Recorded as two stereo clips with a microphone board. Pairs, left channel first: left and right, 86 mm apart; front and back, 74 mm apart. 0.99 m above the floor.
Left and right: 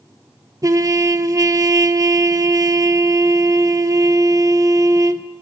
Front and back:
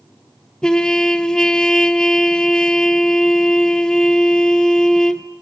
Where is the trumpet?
75° right, 0.8 m.